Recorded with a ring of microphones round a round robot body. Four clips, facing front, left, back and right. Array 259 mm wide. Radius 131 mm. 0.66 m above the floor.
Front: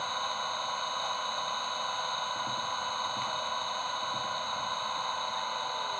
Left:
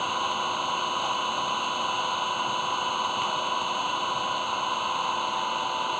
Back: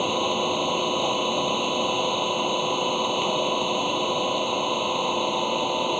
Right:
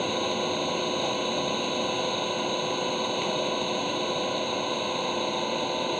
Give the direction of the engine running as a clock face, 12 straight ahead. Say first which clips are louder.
Even, back 10 dB; 5 o'clock.